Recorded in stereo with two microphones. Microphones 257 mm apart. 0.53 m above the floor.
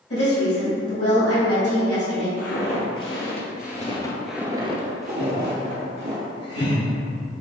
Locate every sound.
0.1 s a woman speaking: 60° left (ahead or behind), 1.8 m
2.4 s footsteps: 65° left (ahead or behind), 1.1 m; by 6.2 s 55° right (ahead or behind), 1.2 m
5.2 s laughter: 40° left (ahead or behind), 1.7 m